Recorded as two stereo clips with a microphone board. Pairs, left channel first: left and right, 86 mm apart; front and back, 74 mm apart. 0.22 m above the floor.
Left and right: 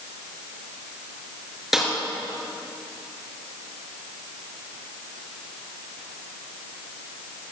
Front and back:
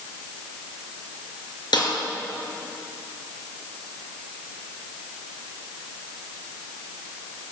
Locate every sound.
1.7 s a snare drum: 5° right, 3.5 m